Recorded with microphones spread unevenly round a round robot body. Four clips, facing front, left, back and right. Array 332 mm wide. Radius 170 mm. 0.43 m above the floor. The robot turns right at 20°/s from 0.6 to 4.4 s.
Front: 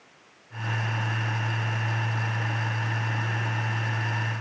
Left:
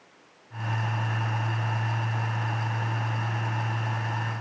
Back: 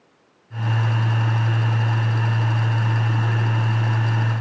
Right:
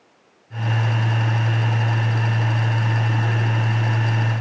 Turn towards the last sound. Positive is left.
No sound to turn to.